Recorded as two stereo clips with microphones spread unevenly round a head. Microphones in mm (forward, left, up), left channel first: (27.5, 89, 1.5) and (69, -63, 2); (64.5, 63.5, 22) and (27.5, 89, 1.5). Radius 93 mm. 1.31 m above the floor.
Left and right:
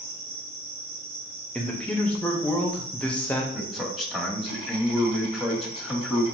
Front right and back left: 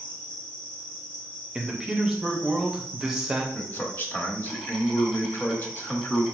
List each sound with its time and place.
0.0 s an insect: 130° right, 2.0 m
1.6 s a man speaking: 175° right, 0.6 m
3.5 s a man speaking: 15° left, 1.4 m